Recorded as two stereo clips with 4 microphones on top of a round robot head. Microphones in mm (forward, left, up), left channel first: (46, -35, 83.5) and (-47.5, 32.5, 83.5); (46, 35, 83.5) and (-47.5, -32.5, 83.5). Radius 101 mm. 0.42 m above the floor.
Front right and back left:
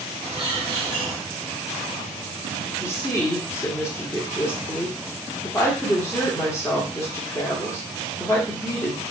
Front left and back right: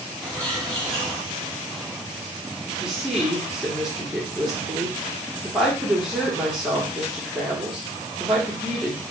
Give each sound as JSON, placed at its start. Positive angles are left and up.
{"t": 0.2, "sound": "a bird", "azimuth_deg": 115, "distance_m": 1.4}
{"t": 2.8, "sound": "a woman speaking", "azimuth_deg": -65, "distance_m": 1.2}